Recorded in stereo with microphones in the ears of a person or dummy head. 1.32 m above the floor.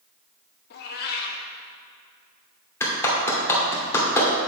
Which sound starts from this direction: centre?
A clap, at 2.8 s.